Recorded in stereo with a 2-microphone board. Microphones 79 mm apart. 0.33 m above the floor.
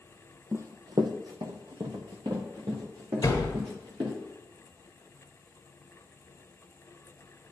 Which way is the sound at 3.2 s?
40° left (ahead or behind).